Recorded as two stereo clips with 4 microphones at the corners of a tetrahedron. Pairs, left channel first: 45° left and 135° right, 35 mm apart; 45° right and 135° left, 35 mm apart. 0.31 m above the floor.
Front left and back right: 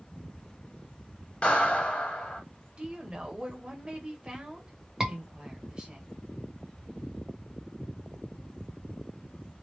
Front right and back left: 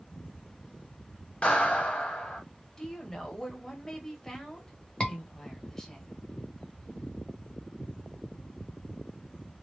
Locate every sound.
1.4 s a clap: straight ahead, 1.2 m
2.8 s a woman speaking: 105° right, 1.1 m
5.0 s a scream: 70° right, 1.2 m